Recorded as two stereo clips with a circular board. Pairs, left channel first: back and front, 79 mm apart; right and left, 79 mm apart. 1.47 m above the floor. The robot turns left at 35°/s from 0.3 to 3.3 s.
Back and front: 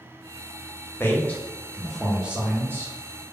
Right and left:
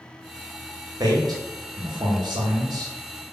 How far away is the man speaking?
About 0.8 m.